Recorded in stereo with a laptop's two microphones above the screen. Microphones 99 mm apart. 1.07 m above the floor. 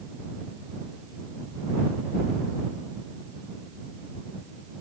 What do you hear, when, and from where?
Only background noise.